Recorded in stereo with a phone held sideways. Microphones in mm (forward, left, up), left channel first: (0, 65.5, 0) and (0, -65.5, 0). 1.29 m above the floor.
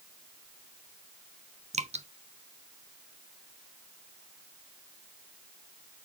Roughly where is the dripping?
Right.